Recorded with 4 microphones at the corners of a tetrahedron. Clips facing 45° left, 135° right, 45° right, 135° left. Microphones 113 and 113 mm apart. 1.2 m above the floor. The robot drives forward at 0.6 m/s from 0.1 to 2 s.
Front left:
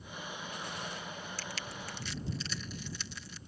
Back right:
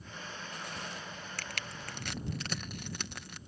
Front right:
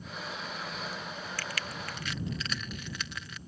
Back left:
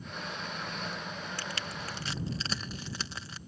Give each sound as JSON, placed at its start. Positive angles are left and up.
{"t": 1.4, "sound": "crushing", "azimuth_deg": -160}